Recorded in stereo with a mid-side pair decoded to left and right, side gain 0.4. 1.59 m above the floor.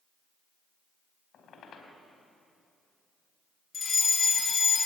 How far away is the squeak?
About 4 m.